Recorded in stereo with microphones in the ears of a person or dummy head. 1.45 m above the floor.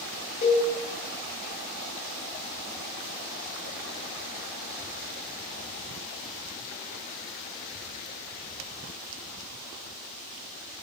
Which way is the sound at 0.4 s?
25° left (ahead or behind).